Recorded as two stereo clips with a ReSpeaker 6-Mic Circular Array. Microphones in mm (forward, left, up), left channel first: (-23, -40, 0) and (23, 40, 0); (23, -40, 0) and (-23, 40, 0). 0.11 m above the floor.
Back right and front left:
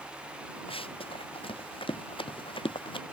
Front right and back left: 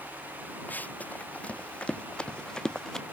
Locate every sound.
0.7 s running footsteps: 130° right; by 3.0 s 145° right